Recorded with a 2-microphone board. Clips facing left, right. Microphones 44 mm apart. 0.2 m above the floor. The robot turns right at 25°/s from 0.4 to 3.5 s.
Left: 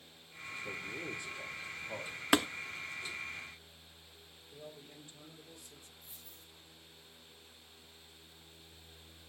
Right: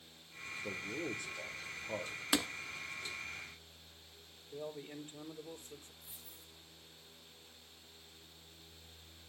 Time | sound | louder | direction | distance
0.6 | a man speaking | right 2 dB | 75° right | 4 m
2.3 | tapping | left 6 dB | 35° left (ahead or behind) | 0.6 m
4.5 | a man speaking | right 7 dB | 45° right (ahead or behind) | 4 m
6.0 | a dropped coin | even | 5° right (ahead or behind) | 7.5 m